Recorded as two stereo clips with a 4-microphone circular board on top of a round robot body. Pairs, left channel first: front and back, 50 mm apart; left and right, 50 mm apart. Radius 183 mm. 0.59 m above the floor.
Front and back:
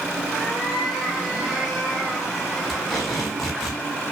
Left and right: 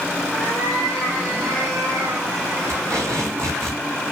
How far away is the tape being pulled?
About 5.5 m.